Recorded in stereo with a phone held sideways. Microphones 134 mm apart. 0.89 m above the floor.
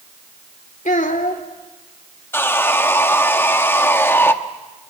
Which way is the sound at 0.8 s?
75° left (ahead or behind).